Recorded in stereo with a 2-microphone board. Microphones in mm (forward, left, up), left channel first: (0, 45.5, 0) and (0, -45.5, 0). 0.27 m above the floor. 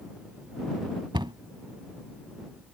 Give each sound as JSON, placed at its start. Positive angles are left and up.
{"t": 1.1, "sound": "a cupboard door", "side_deg": -60}